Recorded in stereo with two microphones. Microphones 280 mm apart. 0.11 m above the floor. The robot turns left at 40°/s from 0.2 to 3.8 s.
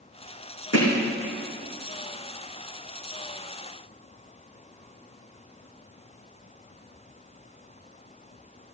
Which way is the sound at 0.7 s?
60° left (ahead or behind).